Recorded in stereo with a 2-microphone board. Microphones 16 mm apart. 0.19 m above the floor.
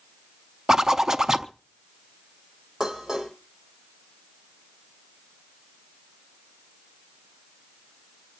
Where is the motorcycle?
No motorcycle in this recording.